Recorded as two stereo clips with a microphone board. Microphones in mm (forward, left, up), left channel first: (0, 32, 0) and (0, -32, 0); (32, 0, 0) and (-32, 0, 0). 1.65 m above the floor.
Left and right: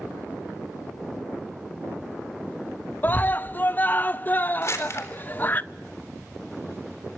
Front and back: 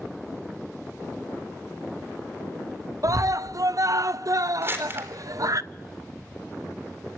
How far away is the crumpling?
About 3.5 m.